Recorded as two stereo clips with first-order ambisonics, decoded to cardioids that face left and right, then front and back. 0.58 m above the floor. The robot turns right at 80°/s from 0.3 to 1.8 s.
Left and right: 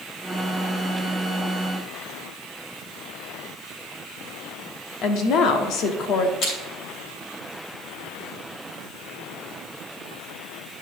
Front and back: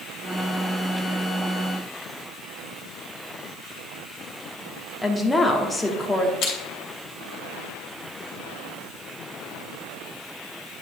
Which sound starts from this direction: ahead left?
Crushing, at 6.4 s.